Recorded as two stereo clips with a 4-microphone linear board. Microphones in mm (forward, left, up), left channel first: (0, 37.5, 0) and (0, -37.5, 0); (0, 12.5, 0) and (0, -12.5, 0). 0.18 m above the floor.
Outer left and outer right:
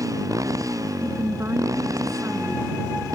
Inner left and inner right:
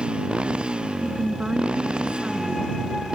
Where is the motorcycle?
45° right (ahead or behind).